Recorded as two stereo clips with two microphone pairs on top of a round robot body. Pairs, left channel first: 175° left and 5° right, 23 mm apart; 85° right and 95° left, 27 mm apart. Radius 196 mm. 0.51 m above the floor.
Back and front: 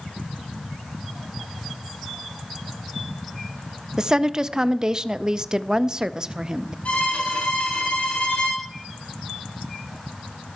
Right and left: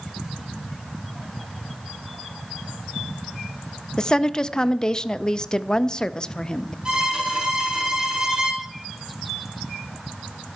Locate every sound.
4.0 s a woman speaking: 45° right, 0.9 m
6.8 s a violin: 155° left, 7 m